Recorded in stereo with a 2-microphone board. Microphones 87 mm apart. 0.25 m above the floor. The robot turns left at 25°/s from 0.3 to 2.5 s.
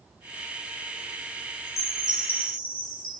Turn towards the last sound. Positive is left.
turn(degrees=-25)  # may be behind; listen again after turning